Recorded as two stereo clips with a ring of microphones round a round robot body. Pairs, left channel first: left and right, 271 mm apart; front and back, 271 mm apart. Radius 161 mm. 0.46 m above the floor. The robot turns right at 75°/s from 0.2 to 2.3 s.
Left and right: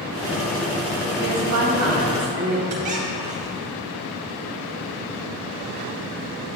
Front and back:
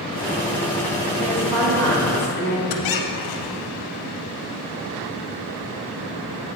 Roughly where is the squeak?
Ahead right.